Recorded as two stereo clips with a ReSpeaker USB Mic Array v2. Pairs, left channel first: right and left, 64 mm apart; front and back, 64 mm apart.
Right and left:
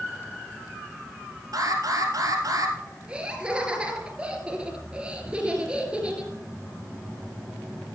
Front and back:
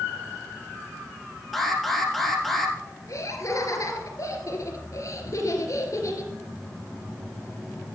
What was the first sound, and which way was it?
An alarm, 90° left.